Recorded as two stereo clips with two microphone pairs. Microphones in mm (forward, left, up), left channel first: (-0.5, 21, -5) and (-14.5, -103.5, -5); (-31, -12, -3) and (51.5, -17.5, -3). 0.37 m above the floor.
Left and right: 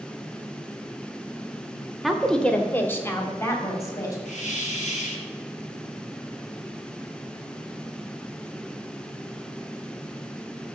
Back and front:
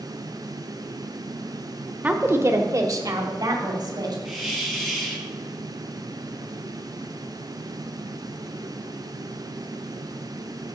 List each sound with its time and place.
2.0 s a woman speaking: 20° right, 0.8 m; by 4.2 s 20° left, 2 m
4.2 s a hiss: 85° left, 2.5 m